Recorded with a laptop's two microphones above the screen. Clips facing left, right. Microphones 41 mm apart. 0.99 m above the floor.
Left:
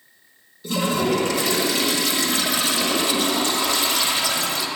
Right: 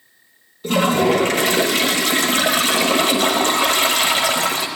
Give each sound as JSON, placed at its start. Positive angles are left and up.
{"t": 0.6, "sound": "a toilet flushing", "side_deg": -55, "distance_m": 1.1}